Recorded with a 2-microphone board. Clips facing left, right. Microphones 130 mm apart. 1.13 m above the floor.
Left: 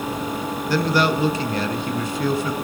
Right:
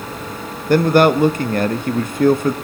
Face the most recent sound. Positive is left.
turn(degrees=-55)  # may be behind; listen again after turning